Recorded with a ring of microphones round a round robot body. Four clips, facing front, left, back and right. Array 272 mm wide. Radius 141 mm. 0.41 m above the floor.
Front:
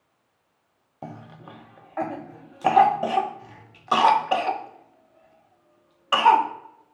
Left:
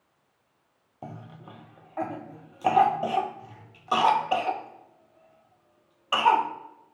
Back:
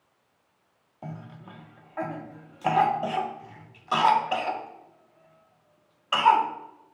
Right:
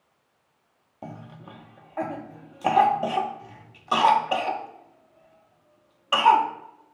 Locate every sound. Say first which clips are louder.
1.0 s a cough: right 2 dB, front 2 dB; 5° right, 0.8 m